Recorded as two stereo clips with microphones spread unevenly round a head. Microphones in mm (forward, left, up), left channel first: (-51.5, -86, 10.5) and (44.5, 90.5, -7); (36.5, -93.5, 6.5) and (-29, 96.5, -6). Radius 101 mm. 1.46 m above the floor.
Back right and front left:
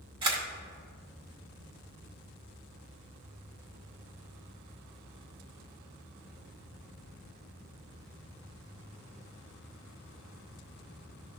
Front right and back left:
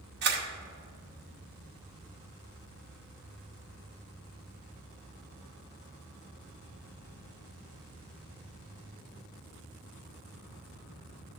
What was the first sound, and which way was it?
A camera shutter, 125° left.